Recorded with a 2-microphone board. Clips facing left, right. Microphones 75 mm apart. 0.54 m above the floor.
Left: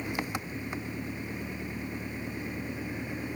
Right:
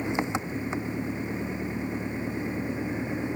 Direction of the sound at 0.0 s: 20° right (ahead or behind).